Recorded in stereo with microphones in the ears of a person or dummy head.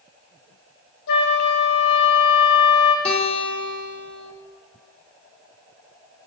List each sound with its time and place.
1.1 s a flute: 70° left (ahead or behind), 1.0 m
3.0 s a guitar: 35° left (ahead or behind), 1.5 m